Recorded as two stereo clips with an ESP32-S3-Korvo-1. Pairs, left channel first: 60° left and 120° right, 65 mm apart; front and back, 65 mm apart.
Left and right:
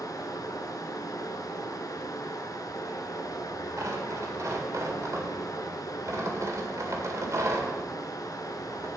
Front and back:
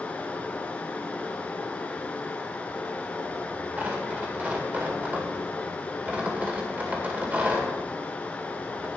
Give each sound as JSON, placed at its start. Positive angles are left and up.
{"t": 0.0, "sound": "running water", "azimuth_deg": 70, "distance_m": 1.0}
{"t": 3.8, "sound": "tearing paper", "azimuth_deg": -125, "distance_m": 1.8}